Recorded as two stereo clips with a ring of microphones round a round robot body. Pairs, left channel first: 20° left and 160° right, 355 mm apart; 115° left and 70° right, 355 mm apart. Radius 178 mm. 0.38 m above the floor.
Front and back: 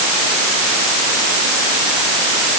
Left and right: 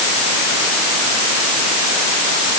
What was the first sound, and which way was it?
Only background noise.